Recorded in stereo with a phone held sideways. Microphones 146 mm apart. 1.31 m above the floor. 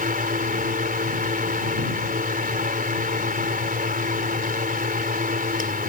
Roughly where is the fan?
Right.